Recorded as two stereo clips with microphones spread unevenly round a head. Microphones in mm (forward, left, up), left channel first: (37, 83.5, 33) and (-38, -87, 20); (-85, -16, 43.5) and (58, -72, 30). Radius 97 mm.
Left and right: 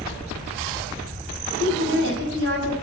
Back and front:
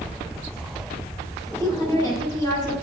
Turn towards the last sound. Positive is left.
turn(degrees=50)